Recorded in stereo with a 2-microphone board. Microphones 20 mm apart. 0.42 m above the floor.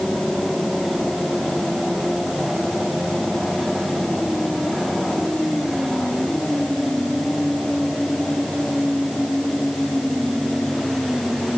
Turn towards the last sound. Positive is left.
No sound to turn to.